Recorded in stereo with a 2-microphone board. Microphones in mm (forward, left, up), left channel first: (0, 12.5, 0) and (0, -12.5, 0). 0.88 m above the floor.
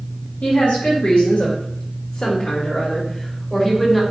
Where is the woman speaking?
65° left (ahead or behind), 1.8 m; by 4.0 s 10° left (ahead or behind), 1.3 m.